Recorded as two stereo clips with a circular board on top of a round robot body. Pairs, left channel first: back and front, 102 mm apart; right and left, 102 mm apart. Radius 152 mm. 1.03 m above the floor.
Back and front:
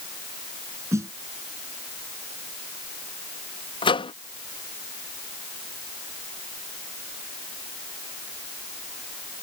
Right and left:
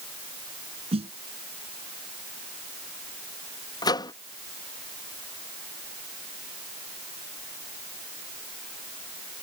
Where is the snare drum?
65° left.